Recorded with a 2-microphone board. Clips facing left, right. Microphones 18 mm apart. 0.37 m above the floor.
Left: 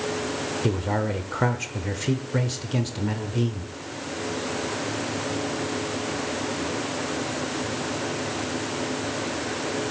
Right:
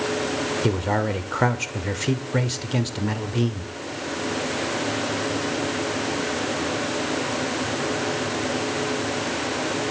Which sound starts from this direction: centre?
A man speaking, at 0.6 s.